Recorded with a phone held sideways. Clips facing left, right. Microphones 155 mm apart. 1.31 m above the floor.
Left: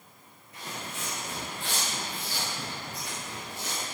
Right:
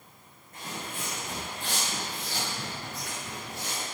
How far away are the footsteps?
About 4 m.